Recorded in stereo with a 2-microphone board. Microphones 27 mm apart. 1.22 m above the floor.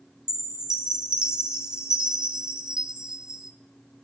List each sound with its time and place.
0.3 s a chime: 30° right (ahead or behind), 0.8 m